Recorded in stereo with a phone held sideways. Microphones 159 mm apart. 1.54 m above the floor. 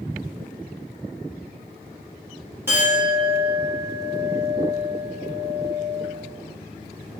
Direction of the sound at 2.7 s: 15° right (ahead or behind).